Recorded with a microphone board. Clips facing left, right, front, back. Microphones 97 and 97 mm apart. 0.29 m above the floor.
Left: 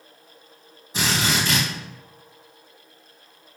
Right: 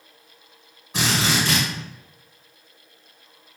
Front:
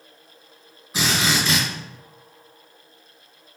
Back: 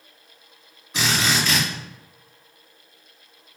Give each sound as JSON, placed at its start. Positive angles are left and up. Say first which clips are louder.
{"t": 0.9, "sound": "a drill", "louder": "right 1 dB, even", "azimuth_deg": -85, "distance_m": 1.9}